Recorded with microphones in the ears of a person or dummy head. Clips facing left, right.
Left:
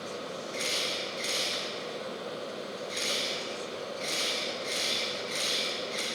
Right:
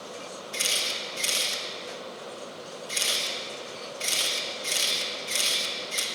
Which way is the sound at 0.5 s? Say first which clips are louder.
Left 1 dB; 45° right (ahead or behind).